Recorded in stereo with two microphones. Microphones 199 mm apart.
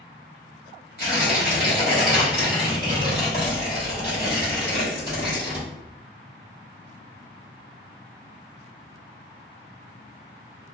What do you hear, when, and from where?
1.0 s tearing paper: 50° left (ahead or behind), 1.4 m